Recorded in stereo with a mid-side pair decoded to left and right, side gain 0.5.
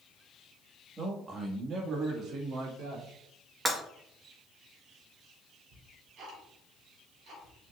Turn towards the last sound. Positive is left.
turn(degrees=-65)